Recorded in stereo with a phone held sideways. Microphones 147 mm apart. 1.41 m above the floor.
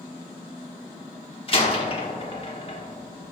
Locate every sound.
1.5 s a door slam: 40° left (ahead or behind), 1.3 m